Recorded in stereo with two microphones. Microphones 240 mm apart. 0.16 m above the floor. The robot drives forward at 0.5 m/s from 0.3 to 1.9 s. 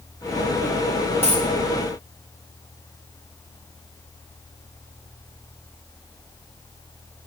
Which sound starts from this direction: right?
A dropped coin, at 1.2 s.